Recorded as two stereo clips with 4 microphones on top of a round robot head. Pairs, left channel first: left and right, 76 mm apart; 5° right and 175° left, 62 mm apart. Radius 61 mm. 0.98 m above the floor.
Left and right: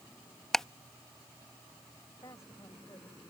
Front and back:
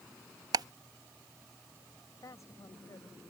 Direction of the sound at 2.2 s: 30° left.